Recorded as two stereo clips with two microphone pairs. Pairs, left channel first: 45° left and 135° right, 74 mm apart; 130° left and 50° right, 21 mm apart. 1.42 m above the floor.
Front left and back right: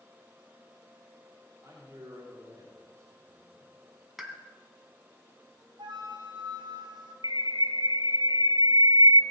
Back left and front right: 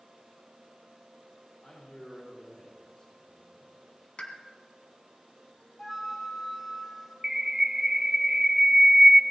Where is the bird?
120° right, 0.6 m.